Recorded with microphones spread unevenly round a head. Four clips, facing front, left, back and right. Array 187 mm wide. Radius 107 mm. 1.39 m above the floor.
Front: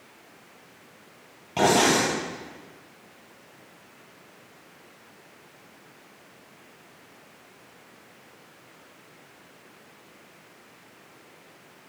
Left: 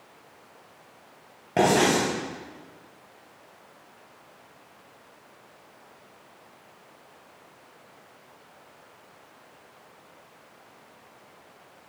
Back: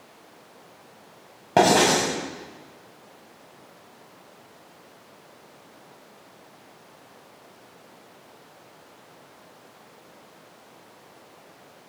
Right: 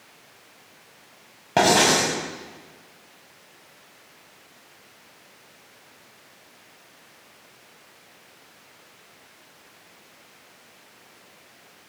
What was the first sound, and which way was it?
Writing, 165° right.